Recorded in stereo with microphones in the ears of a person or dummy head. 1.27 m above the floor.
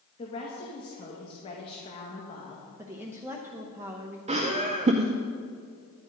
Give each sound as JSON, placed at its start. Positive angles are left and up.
{"t": 0.2, "sound": "a woman speaking", "side_deg": 30, "distance_m": 1.6}
{"t": 2.8, "sound": "a woman speaking", "side_deg": -5, "distance_m": 0.8}
{"t": 4.3, "sound": "laughter", "side_deg": -25, "distance_m": 0.6}